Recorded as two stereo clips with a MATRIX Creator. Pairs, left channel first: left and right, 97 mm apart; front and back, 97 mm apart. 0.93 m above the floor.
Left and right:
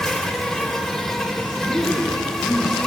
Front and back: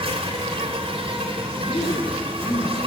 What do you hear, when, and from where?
0.0 s an insect: 175° left, 3 m
1.6 s a woman speaking: 5° left, 8 m